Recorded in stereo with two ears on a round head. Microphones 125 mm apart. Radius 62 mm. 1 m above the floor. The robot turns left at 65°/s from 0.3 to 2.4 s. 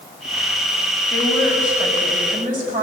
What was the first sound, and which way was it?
A woman speaking, 25° left.